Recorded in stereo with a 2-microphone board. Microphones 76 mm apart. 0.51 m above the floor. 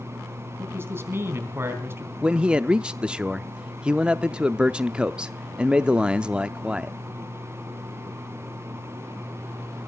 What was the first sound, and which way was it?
A man speaking, 30° right (ahead or behind).